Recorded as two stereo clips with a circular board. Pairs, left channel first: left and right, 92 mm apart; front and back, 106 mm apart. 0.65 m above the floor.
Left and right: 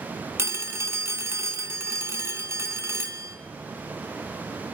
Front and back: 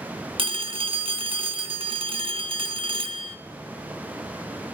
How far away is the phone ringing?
About 0.7 m.